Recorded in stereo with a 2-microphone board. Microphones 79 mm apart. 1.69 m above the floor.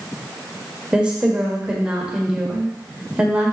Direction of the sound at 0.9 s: 10° right (ahead or behind).